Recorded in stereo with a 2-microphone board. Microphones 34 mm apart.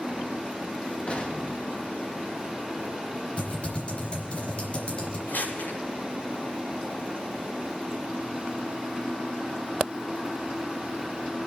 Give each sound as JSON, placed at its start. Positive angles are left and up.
{"t": 1.1, "sound": "an explosion", "side_deg": 40, "distance_m": 1.4}
{"t": 3.4, "sound": "typing on a keyboard", "side_deg": 40, "distance_m": 4.0}
{"t": 5.3, "sound": "crumpling", "side_deg": 70, "distance_m": 6.0}